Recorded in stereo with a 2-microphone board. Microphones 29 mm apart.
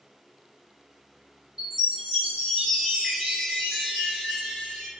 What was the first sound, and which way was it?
A chime, 15° right (ahead or behind).